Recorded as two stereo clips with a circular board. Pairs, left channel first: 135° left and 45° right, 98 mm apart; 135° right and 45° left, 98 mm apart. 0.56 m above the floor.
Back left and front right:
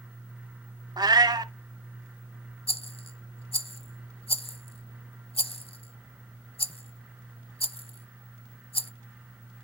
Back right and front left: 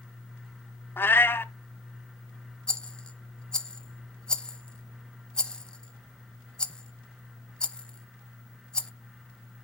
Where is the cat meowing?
75° right, 0.5 m.